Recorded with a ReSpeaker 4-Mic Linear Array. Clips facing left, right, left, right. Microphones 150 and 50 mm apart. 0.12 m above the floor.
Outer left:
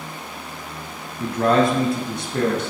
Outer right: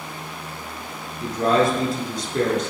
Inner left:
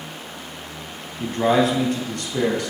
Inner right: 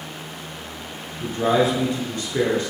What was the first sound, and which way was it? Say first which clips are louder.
A man speaking: outer left 1 dB, inner left 1 dB; 50° left (ahead or behind).